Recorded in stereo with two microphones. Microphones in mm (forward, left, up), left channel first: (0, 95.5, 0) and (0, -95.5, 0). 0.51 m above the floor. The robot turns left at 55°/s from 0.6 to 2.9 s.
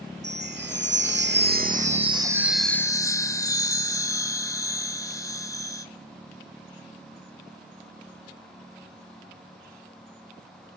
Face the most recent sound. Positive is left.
turn(degrees=165)